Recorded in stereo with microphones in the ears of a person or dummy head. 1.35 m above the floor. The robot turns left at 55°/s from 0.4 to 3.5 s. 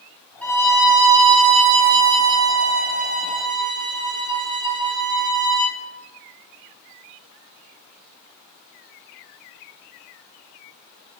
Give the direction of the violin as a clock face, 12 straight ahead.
12 o'clock.